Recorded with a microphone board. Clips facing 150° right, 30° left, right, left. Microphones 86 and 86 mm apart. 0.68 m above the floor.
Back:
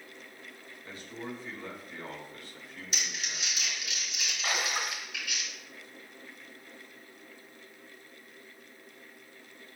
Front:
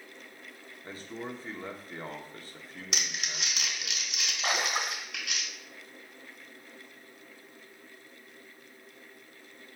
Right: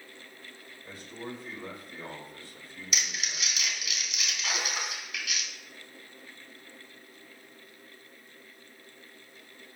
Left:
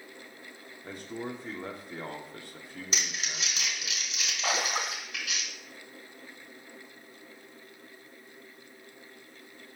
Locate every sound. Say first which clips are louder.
0.8 s a man speaking: front 2 dB, left 4 dB; 80° left, 1.4 m
2.9 s crumpling: front 2 dB, right 1 dB; 35° left, 2 m
4.4 s a splash: front 2 dB, left 5 dB; 90° left, 1.0 m